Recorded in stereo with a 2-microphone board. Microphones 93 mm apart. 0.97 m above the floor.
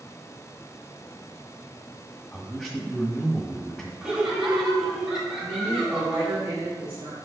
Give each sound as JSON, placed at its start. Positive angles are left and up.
{"t": 2.3, "sound": "a man speaking", "side_deg": 10, "distance_m": 1.6}
{"t": 4.0, "sound": "laughter", "side_deg": -5, "distance_m": 2.0}
{"t": 5.4, "sound": "a woman speaking", "side_deg": -50, "distance_m": 2.5}